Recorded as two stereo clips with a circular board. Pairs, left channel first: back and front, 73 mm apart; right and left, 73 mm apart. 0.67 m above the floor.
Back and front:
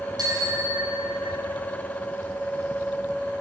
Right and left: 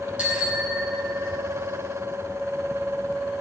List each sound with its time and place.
0.2 s a bicycle bell: 15° left, 5.5 m; by 1.4 s straight ahead, 6 m